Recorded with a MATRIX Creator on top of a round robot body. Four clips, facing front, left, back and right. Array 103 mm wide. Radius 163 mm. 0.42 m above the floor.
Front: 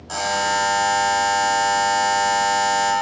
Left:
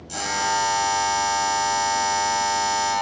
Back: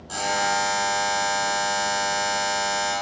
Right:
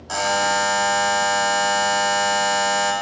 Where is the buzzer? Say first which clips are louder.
Right 4 dB, front 3 dB; 65° right, 1.0 m.